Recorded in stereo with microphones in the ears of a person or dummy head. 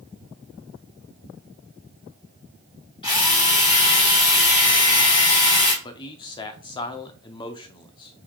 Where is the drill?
25° left (ahead or behind), 3.5 m.